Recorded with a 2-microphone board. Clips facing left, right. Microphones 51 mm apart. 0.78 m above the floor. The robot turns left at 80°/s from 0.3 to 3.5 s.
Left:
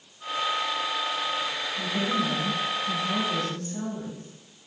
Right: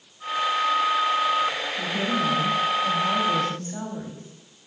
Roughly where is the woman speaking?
Ahead.